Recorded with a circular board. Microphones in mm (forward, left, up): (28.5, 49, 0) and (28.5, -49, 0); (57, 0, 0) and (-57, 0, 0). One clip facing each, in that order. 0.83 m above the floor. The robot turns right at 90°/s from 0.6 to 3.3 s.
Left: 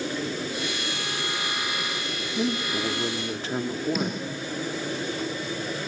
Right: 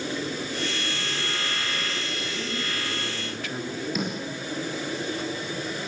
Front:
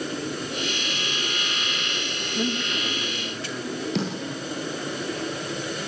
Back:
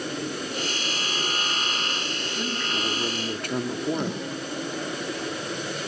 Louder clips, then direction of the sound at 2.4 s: Left 9 dB, front 4 dB; 60° left.